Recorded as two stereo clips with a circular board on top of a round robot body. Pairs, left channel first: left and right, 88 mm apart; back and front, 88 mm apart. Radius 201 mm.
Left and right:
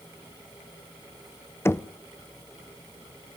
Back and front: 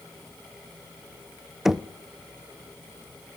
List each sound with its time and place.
1.6 s knocking: 80° left, 0.8 m